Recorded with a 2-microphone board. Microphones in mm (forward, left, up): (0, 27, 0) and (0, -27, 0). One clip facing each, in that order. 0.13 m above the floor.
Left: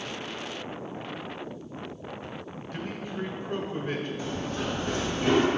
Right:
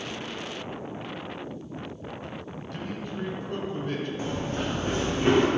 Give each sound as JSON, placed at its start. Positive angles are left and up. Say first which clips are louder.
{"t": 2.7, "sound": "a man speaking", "louder": "even", "side_deg": 15, "distance_m": 1.1}
{"t": 4.2, "sound": "running footsteps", "louder": "right 2 dB", "side_deg": -40, "distance_m": 2.5}